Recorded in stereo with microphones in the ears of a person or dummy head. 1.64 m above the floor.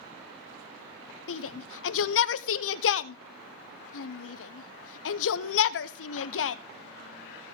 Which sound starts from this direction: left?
A shout, at 1.3 s.